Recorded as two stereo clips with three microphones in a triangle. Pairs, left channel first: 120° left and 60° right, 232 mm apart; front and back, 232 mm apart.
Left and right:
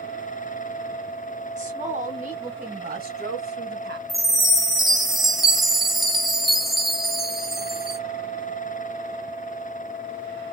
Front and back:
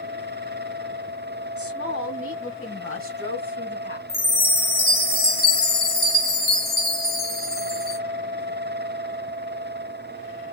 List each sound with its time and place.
1.6 s a woman speaking: 5° right, 3 m; by 4.0 s 30° right, 1.4 m
4.1 s a chime: 30° left, 1.6 m